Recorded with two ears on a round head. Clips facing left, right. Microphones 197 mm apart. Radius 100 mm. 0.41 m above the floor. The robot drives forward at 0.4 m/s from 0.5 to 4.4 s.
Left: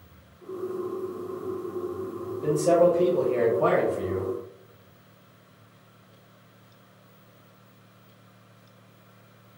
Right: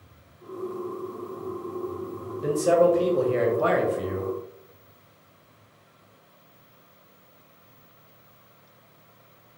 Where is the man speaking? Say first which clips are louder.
Even; 10° right (ahead or behind), 1.2 m; by 4.3 s 20° right (ahead or behind), 0.8 m.